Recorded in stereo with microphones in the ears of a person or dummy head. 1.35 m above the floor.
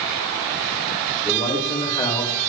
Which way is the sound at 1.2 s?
25° left (ahead or behind).